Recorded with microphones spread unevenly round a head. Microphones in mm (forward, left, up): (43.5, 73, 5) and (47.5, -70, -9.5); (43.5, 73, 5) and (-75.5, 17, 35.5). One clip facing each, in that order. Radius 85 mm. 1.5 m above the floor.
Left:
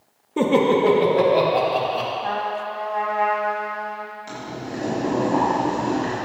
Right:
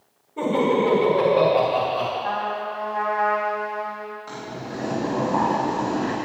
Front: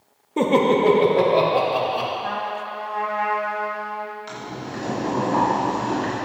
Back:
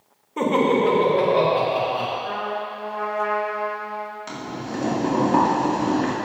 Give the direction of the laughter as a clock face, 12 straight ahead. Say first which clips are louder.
Left 3 dB, front 1 dB; 9 o'clock.